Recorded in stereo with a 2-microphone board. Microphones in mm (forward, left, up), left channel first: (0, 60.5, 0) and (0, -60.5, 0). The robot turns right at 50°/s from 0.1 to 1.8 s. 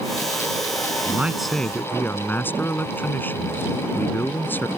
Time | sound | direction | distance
1.1 | a man speaking | 20° right | ?